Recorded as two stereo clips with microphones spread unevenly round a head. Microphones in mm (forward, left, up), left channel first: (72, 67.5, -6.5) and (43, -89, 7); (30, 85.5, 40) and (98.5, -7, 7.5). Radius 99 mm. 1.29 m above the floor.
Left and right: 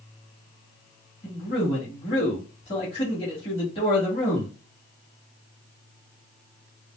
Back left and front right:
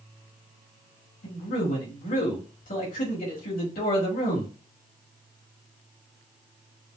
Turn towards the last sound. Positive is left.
turn(degrees=145)